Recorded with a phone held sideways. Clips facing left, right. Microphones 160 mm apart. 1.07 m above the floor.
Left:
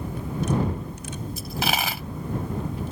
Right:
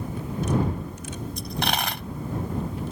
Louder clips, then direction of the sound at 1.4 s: Even; 5° left (ahead or behind).